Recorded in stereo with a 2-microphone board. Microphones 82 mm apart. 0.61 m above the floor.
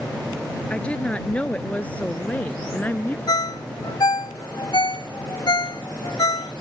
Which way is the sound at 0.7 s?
15° left (ahead or behind).